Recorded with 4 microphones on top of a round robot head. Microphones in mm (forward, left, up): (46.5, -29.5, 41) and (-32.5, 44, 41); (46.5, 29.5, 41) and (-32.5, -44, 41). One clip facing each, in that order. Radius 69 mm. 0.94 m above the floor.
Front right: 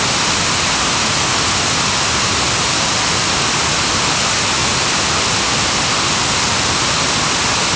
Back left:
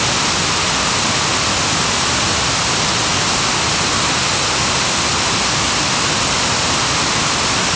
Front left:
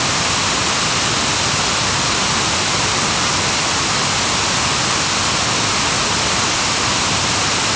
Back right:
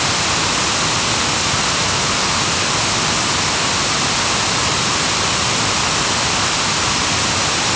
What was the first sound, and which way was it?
Only background noise.